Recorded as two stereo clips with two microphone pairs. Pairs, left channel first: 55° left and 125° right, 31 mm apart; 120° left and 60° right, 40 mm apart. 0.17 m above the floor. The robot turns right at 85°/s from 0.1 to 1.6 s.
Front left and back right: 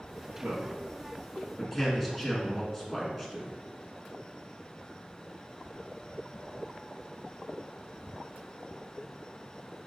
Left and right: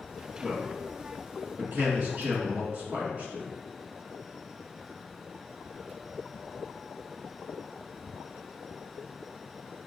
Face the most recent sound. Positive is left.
turn(degrees=-40)